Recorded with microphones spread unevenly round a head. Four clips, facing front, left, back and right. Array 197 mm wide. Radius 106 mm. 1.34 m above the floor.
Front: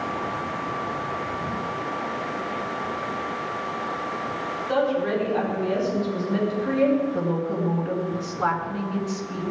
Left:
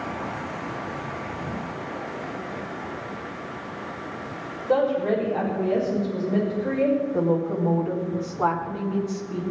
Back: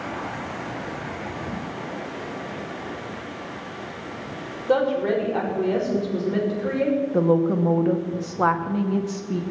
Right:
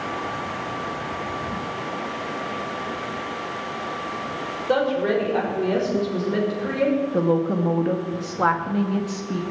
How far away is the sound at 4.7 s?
About 6.5 m.